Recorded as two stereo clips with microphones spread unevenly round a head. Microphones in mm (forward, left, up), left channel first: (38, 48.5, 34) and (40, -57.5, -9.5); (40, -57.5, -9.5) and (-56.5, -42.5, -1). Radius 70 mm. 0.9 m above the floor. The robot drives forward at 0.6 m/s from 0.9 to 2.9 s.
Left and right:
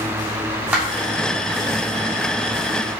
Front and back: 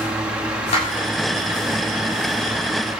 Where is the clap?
15° right, 6.5 m.